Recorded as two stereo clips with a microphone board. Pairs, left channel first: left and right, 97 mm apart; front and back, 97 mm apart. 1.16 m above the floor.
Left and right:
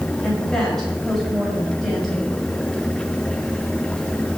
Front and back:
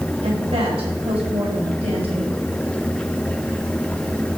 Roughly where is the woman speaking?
Behind.